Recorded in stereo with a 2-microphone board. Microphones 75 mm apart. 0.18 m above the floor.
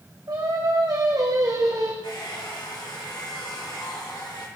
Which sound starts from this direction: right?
Singing, at 0.3 s.